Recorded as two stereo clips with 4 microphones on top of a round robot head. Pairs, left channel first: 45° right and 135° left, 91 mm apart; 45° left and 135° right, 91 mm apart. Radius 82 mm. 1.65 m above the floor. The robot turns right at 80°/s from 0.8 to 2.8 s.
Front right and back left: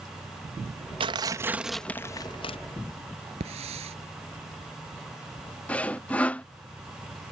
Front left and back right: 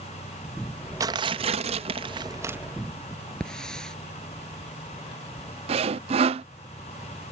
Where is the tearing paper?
170° left; by 2.6 s 65° right.